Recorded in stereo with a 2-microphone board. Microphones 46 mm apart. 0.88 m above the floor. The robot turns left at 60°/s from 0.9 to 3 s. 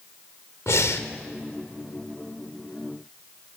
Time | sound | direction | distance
0.7 | breathing | 80° left | 1.3 m